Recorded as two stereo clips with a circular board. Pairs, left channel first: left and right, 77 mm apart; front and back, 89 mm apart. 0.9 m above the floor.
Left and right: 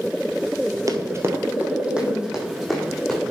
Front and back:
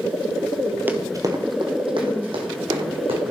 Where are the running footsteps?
115° right, 1.3 m; by 3.2 s straight behind, 4 m.